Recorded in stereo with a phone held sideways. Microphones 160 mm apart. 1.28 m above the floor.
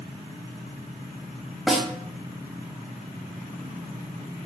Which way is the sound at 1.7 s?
Centre (ahead or behind).